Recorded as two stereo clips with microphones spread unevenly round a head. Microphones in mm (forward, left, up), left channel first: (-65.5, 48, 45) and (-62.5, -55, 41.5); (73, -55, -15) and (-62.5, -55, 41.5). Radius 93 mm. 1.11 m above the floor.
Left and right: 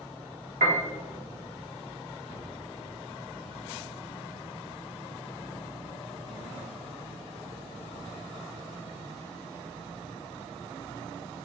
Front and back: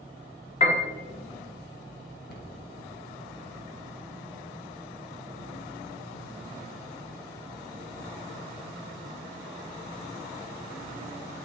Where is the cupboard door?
5° right, 1.1 m.